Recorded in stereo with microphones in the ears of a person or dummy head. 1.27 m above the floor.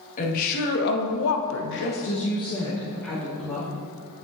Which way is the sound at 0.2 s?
45° left (ahead or behind).